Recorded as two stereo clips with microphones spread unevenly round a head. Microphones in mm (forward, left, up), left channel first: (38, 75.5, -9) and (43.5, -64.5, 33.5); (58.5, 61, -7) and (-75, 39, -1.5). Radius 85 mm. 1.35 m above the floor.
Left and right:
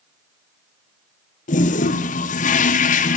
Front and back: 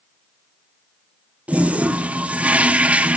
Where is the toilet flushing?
110° left, 1.0 m.